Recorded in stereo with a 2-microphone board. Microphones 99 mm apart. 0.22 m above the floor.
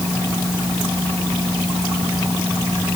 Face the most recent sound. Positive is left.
No sound to turn to.